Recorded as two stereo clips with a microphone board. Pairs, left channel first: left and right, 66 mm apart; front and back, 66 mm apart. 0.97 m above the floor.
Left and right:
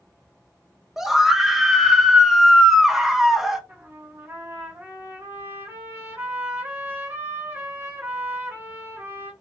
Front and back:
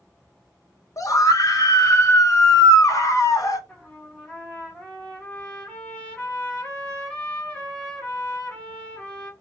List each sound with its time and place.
1.0 s a scream: 5° right, 0.7 m
3.7 s a trumpet: 60° right, 1.0 m